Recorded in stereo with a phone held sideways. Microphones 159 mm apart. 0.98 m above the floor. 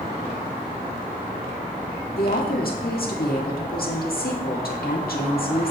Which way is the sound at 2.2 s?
70° left (ahead or behind).